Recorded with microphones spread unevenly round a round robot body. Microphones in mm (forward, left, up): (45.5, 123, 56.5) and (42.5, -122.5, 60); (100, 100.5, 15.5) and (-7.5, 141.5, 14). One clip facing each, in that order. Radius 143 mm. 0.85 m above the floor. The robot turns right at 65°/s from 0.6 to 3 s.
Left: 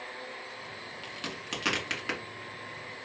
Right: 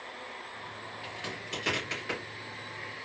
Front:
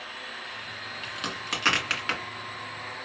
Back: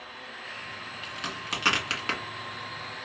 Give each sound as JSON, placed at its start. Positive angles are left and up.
{"t": 1.0, "sound": "a crack", "azimuth_deg": 40, "distance_m": 1.7}